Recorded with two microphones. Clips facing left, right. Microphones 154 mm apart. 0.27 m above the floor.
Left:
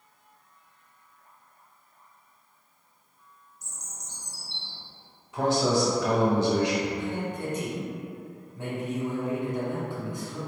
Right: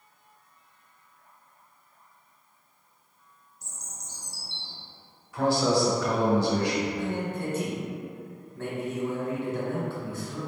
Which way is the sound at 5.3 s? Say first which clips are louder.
Even; 20° left (ahead or behind).